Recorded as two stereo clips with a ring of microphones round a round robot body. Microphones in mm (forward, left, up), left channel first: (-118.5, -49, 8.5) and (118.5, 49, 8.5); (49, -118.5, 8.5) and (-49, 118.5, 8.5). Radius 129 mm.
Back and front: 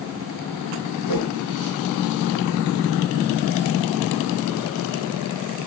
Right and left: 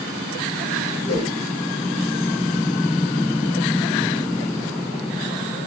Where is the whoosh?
130° right, 4.5 m.